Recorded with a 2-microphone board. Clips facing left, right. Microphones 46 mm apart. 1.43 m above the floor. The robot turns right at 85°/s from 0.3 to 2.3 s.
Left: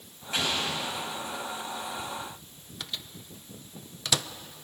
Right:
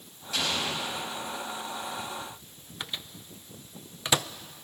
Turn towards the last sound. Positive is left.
turn(degrees=-20)  # may be behind; listen again after turning